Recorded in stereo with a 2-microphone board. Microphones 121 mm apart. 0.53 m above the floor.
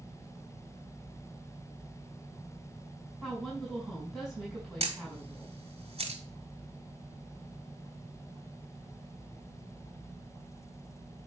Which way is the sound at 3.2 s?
Centre (ahead or behind).